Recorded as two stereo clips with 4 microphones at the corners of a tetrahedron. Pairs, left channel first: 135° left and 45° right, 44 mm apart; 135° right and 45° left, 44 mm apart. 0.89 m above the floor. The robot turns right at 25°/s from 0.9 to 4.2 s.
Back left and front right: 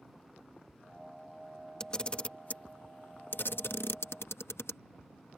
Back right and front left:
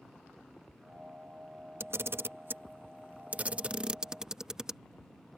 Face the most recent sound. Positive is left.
turn(degrees=120)